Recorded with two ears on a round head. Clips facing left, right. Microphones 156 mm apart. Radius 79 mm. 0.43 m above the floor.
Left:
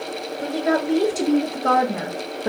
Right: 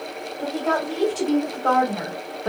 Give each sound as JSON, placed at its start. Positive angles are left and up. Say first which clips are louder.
{"t": 0.4, "sound": "a woman speaking", "louder": "left 2 dB", "side_deg": 20, "distance_m": 2.0}